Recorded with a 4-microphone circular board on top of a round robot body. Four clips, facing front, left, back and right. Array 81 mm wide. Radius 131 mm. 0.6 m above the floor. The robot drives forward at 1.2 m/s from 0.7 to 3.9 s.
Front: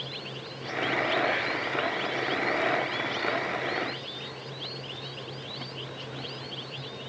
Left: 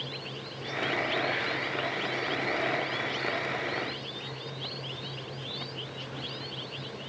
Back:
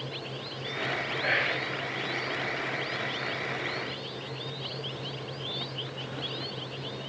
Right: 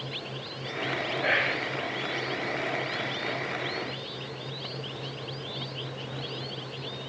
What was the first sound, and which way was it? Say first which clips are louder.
Whispering: right 3 dB, front 1 dB; 105° right.